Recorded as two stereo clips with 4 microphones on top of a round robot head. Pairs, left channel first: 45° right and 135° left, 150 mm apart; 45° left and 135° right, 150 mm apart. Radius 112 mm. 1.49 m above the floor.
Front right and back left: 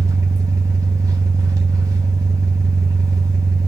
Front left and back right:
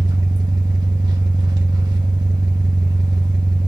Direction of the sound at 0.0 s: 175° right.